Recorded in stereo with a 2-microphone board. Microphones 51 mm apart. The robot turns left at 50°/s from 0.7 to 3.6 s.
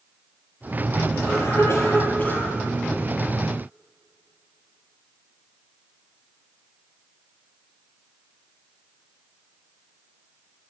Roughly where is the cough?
Left.